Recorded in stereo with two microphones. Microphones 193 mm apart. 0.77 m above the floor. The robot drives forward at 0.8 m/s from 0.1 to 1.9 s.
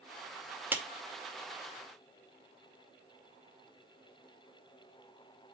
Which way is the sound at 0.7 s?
10° right (ahead or behind).